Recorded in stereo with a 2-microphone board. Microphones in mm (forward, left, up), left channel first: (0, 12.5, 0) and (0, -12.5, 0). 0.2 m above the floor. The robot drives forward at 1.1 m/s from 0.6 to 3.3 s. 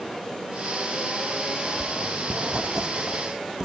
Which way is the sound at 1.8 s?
60° right (ahead or behind).